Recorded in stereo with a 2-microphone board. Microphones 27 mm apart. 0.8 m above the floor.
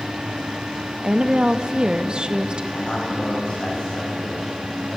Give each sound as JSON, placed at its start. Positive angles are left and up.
{"t": 1.0, "sound": "a woman speaking", "side_deg": -40, "distance_m": 0.5}
{"t": 2.7, "sound": "a man speaking", "side_deg": 45, "distance_m": 4.5}